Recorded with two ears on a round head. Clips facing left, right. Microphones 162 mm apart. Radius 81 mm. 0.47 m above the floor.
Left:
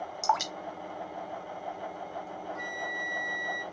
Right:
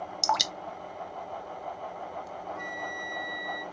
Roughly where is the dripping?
Right.